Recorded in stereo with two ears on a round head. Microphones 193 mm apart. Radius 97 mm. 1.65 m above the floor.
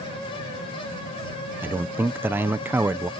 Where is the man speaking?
10° right (ahead or behind).